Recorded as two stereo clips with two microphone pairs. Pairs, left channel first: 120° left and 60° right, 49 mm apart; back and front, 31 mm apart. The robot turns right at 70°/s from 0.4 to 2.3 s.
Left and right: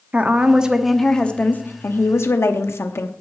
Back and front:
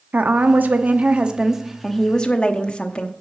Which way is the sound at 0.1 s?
10° right.